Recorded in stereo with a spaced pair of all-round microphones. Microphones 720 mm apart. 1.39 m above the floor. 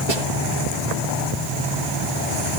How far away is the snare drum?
About 8.5 m.